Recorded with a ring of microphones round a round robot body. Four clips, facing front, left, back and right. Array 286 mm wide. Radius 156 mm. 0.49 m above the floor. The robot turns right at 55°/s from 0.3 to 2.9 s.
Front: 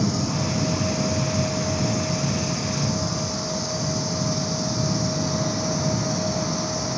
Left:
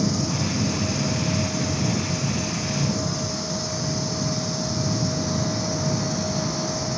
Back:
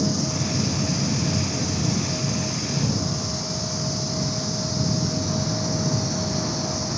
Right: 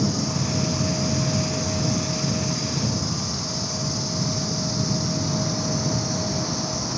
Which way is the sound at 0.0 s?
165° left.